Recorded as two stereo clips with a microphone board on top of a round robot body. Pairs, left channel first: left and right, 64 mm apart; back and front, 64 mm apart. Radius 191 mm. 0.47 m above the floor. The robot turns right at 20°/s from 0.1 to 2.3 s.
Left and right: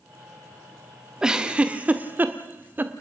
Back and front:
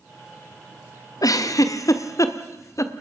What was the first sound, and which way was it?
A giggle, 170° right.